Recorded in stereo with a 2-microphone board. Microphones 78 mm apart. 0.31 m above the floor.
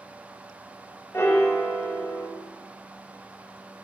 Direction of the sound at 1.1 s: 35° left (ahead or behind).